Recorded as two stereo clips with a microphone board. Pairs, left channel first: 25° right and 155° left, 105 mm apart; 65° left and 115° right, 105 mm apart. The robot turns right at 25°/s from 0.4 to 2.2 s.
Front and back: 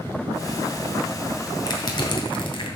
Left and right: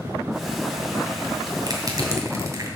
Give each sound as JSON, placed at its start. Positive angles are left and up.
{"t": 1.7, "sound": "crushing", "azimuth_deg": -70, "distance_m": 2.0}